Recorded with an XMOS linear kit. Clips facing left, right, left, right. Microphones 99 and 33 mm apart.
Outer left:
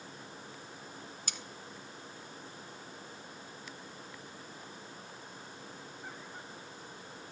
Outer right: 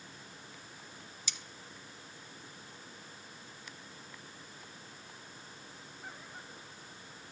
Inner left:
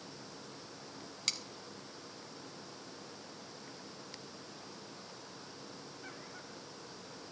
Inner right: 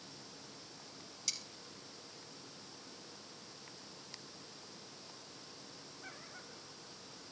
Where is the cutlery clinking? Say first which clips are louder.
Even, inner left 5 dB; 60° left (ahead or behind), 1.1 m.